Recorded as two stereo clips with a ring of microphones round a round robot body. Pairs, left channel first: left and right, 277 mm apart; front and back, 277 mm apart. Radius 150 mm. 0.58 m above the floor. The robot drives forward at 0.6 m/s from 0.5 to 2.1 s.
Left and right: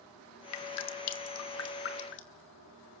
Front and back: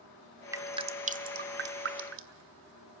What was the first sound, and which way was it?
Dripping, 100° left.